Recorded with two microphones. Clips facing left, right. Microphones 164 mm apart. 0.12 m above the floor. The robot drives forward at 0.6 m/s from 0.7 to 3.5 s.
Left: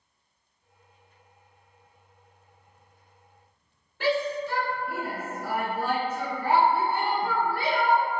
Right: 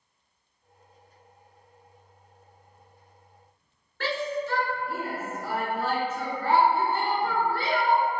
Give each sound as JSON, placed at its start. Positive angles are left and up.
{"t": 4.0, "sound": "a shout", "side_deg": 15, "distance_m": 1.2}